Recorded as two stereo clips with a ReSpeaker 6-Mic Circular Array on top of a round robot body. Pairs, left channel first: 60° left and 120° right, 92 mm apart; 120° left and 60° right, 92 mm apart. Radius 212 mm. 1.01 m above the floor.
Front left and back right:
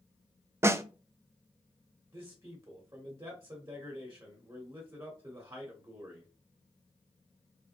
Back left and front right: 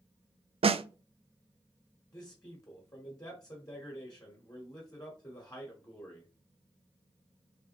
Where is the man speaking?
175° left, 1.3 m.